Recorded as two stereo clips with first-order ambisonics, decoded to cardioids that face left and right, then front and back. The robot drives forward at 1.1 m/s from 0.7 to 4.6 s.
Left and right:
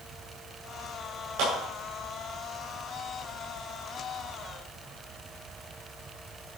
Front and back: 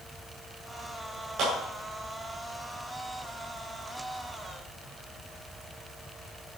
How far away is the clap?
About 6.5 m.